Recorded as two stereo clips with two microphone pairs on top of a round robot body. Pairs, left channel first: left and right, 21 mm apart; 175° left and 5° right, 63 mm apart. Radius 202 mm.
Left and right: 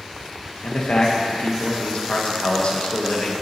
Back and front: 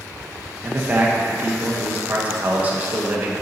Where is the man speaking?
65° left, 1.0 m.